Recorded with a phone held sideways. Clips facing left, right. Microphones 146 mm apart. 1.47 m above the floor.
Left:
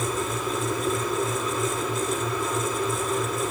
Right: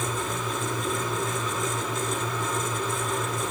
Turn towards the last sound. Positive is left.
turn(degrees=5)  # may be behind; listen again after turning